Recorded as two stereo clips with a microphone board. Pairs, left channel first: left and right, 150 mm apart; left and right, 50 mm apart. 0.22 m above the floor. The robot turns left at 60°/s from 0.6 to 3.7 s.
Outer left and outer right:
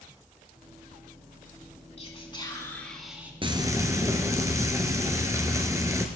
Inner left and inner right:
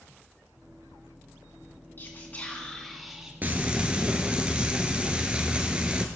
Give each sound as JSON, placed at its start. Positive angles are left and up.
{"t": 2.0, "sound": "whispering", "azimuth_deg": 65, "distance_m": 2.5}
{"t": 3.4, "sound": "frying", "side_deg": -40, "distance_m": 1.2}